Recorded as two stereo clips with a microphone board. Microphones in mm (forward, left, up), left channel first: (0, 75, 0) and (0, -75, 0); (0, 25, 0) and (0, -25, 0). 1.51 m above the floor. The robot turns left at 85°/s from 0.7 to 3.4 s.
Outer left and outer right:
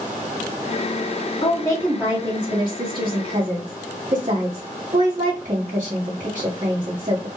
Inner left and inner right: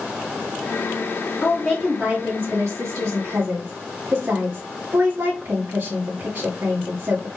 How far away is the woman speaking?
About 2.0 m.